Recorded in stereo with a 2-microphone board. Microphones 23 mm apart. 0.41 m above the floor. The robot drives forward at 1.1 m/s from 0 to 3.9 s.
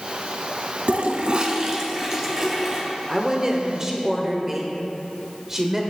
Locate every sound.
0.9 s a toilet flushing: 80° right, 0.6 m; by 2.8 s 15° right (ahead or behind), 2.5 m
3.1 s a woman speaking: 20° right (ahead or behind), 0.9 m